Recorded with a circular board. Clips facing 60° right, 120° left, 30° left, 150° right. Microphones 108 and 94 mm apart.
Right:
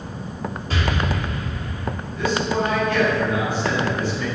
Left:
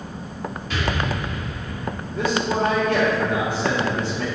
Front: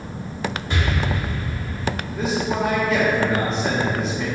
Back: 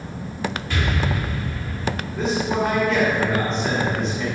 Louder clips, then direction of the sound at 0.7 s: Right 1 dB, even; 30° right.